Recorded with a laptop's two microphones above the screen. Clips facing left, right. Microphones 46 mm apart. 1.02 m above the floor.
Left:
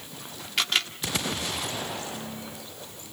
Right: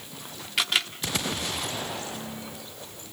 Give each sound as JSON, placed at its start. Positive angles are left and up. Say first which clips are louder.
{"t": 0.6, "sound": "a camera shutter", "louder": "even", "side_deg": -5, "distance_m": 1.6}